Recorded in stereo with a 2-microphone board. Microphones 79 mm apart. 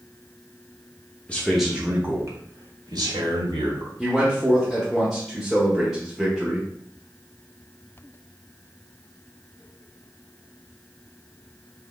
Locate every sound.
1.3 s a man speaking: 15° left (ahead or behind), 0.9 m; by 3.9 s 70° right (ahead or behind), 2.5 m
4.0 s a man speaking: 5° right (ahead or behind), 1.0 m